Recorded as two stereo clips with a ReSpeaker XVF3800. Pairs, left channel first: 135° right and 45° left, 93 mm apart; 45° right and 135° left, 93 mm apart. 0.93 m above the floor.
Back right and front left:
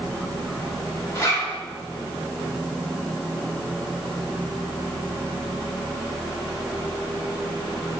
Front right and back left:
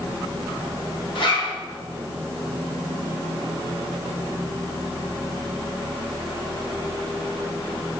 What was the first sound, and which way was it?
A zipper, 75° right.